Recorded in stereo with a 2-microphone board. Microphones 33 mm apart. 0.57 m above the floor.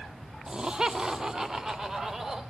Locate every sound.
0.5 s laughter: 25° right (ahead or behind), 0.8 m; by 2.4 s 15° right (ahead or behind), 2 m